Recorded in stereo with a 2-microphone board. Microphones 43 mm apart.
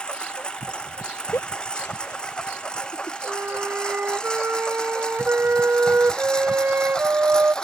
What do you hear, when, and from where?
0.0 s a lawn mower: 25° left (ahead or behind); by 7.6 s 20° left (ahead or behind)
1.3 s a giggle: 75° left (ahead or behind)
3.2 s a flute: 55° right (ahead or behind)